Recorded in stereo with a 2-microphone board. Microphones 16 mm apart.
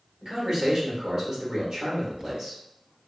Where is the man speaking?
45° right (ahead or behind), 1.7 m.